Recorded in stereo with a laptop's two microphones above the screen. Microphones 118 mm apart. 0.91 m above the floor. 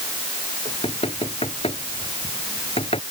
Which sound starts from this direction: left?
Knocking, at 0.7 s.